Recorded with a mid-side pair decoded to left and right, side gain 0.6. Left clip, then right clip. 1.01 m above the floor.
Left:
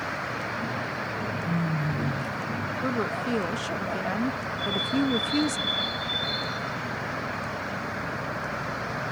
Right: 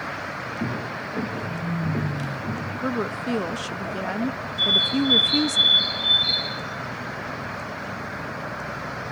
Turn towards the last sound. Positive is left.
turn(degrees=-60)